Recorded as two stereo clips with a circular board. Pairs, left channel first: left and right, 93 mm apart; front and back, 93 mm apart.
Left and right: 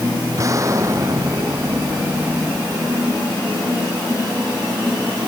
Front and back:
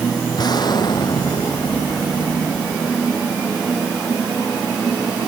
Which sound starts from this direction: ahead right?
An explosion, at 0.4 s.